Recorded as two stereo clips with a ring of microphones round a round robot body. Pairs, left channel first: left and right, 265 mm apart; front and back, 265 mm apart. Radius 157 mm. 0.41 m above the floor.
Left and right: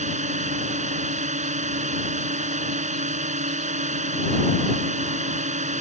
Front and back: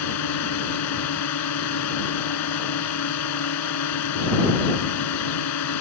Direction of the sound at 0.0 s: 30° right.